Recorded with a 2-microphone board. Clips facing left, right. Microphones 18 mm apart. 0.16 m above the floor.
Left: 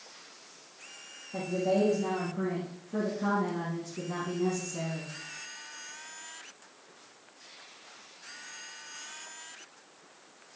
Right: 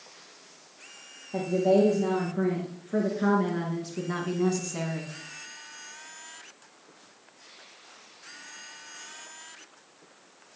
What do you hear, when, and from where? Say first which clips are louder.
1.3 s a woman speaking: right 6 dB; 40° right (ahead or behind), 3 m; by 5.1 s 35° right (ahead or behind), 1.5 m